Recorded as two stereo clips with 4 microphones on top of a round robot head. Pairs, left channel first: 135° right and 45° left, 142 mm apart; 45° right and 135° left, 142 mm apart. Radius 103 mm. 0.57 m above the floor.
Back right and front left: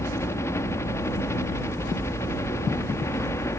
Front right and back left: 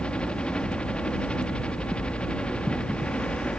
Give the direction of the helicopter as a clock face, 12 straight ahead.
4 o'clock.